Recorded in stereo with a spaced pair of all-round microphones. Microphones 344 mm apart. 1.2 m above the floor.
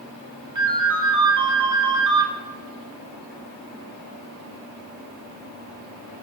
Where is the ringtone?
60° right (ahead or behind), 1.6 m.